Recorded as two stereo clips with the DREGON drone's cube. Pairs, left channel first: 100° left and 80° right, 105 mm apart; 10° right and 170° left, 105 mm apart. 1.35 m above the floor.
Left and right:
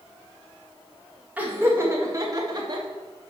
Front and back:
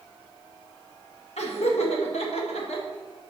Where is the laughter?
5° right, 1.7 m; by 2.9 s 30° right, 1.9 m.